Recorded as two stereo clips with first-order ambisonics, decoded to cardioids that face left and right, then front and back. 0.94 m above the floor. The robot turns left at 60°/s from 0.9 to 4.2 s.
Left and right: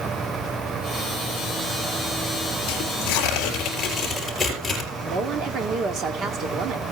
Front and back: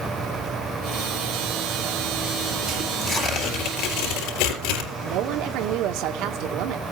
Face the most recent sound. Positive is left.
turn(degrees=-145)